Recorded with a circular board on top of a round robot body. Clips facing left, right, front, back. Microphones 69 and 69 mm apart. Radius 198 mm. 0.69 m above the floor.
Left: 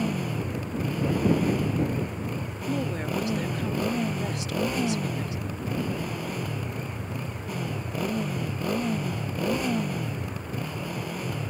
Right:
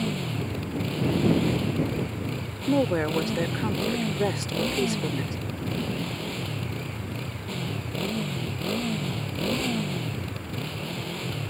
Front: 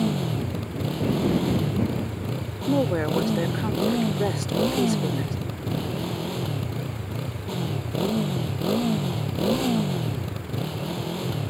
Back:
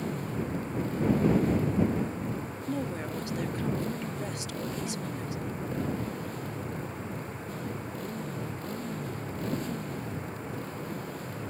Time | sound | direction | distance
0.0 | a motorcycle | 15° left | ?
2.7 | a woman speaking | 40° right | ?